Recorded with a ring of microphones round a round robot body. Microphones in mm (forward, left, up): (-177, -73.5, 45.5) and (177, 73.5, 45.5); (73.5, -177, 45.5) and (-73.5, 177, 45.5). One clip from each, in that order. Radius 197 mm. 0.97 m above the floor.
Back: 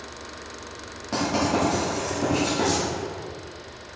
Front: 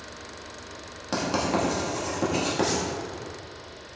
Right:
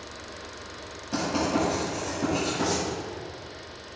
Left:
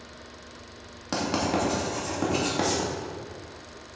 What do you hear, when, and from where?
1.1 s writing: 80° left, 2 m